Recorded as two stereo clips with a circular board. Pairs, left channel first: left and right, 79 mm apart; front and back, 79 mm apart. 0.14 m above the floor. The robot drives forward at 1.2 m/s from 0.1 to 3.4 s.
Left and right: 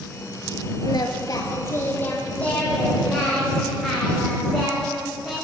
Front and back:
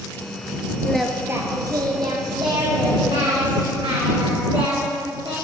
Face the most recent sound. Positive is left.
turn(degrees=170)